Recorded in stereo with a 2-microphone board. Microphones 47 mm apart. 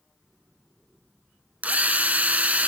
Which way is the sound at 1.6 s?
35° right (ahead or behind).